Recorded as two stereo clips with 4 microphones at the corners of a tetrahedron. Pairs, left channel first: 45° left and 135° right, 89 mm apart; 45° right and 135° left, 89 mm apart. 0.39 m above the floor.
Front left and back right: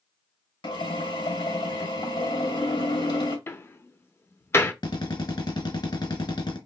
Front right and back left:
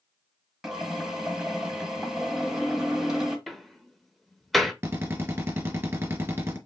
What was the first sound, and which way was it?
A drill, 50° left.